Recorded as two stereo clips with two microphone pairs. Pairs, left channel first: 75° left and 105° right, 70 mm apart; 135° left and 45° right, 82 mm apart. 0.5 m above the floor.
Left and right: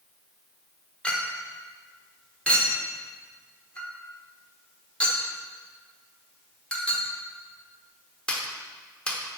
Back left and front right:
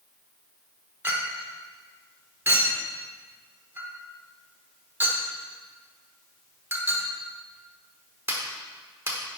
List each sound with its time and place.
1.0 s a clink: 5° left, 1.0 m